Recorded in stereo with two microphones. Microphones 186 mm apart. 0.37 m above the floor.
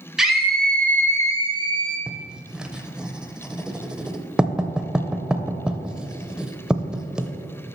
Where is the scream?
5° right (ahead or behind), 1.8 m; by 2.0 s 30° left (ahead or behind), 1.7 m.